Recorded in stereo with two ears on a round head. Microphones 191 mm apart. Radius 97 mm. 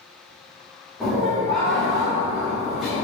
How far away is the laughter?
About 0.8 m.